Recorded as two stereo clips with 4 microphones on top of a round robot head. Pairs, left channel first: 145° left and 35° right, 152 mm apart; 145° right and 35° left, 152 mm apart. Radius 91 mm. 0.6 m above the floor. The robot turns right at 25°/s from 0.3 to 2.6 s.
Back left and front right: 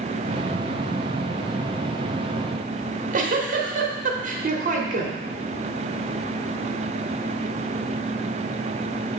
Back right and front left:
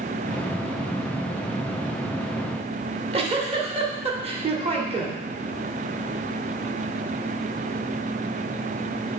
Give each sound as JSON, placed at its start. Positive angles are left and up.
{"t": 2.8, "sound": "a giggle", "azimuth_deg": -10, "distance_m": 1.3}